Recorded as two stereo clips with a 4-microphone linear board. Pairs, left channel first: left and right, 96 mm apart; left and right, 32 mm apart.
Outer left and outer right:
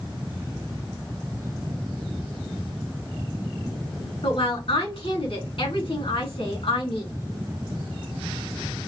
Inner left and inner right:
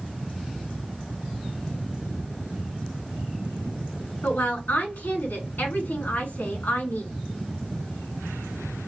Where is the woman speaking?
75° left (ahead or behind), 3.5 m.